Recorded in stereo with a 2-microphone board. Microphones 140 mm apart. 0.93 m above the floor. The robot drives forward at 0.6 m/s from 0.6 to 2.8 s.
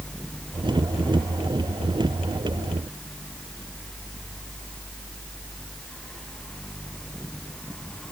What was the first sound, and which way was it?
Only background noise.